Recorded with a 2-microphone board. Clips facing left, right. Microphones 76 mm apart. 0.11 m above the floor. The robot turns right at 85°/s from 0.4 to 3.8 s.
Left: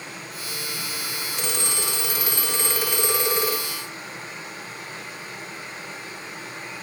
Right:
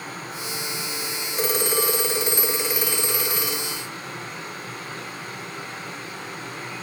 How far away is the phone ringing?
About 1.4 m.